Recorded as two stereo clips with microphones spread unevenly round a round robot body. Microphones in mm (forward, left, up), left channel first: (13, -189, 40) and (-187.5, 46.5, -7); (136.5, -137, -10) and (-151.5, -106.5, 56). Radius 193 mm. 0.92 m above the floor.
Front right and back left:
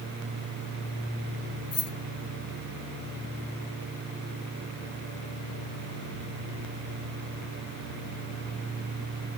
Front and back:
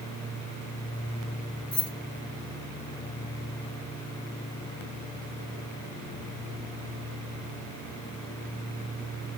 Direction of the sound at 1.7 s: 95° right.